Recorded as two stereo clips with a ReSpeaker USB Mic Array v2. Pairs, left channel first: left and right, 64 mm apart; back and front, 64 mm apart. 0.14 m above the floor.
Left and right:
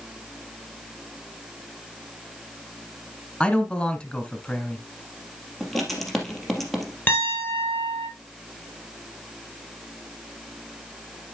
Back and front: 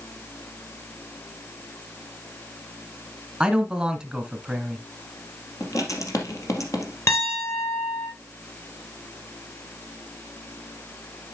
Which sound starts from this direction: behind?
Writing, at 5.6 s.